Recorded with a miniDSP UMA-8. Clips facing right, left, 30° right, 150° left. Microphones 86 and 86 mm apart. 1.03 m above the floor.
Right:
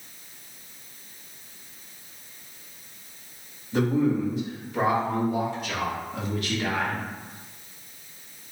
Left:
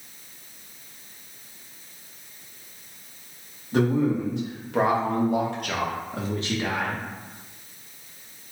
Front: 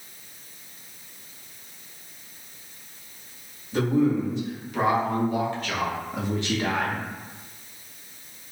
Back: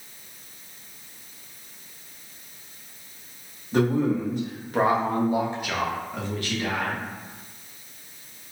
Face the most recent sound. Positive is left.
turn(degrees=5)